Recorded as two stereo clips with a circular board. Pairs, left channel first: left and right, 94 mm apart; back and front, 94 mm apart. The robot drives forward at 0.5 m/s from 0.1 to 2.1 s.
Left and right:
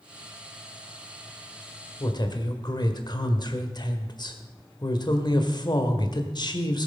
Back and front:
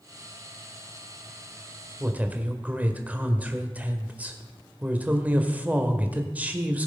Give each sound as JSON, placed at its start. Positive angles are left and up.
{"t": 2.0, "sound": "a woman speaking", "azimuth_deg": 70, "distance_m": 1.6}